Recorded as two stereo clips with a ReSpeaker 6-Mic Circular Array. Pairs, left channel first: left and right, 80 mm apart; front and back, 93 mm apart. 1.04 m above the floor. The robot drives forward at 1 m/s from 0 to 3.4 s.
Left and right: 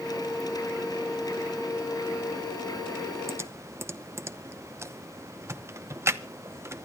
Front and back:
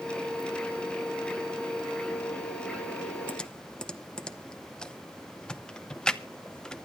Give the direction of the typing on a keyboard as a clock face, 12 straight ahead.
2 o'clock.